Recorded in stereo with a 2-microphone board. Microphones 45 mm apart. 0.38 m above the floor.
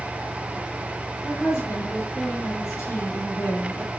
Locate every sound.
1.2 s a woman speaking: 80° left, 7 m